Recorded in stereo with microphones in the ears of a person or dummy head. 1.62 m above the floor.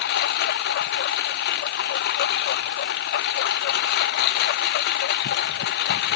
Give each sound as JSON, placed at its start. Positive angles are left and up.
{"t": 0.0, "sound": "a lawn mower", "side_deg": 50}